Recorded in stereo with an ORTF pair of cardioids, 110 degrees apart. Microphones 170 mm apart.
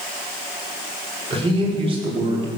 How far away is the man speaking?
About 5.5 m.